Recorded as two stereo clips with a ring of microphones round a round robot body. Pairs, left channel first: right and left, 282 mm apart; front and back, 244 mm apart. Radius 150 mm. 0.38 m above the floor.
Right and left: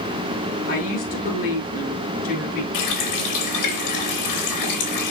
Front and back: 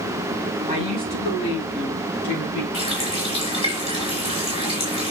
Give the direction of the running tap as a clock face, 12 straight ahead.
2 o'clock.